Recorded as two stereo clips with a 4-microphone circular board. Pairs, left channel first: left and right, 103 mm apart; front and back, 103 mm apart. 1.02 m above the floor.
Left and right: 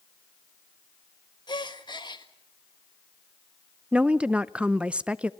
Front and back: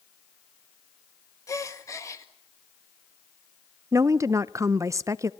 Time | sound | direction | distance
1.5 | a gasp | 55° left | 1.7 m
3.9 | a woman speaking | 160° right | 0.6 m